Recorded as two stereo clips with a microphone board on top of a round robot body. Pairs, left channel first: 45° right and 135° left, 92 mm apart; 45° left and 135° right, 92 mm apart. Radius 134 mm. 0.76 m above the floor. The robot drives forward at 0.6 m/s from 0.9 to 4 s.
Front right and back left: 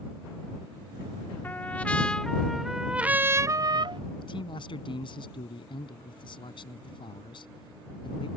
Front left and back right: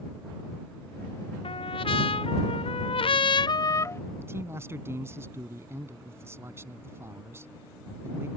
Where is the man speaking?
70° right.